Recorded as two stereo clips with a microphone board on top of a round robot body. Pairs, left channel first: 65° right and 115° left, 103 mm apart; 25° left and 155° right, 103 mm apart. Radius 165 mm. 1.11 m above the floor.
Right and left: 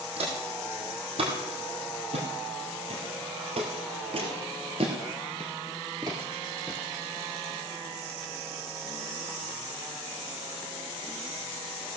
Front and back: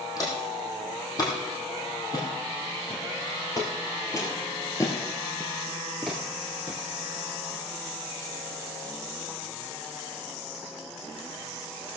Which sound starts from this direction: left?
Footsteps, at 0.2 s.